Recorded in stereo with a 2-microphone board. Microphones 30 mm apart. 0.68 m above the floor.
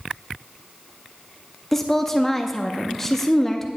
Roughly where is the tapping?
No tapping in this recording.